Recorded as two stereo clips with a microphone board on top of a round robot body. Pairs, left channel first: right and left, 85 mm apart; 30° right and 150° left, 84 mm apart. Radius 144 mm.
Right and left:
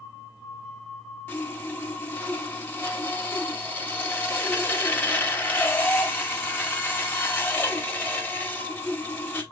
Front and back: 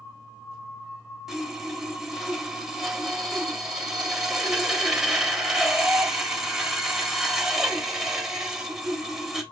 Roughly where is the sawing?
Behind right.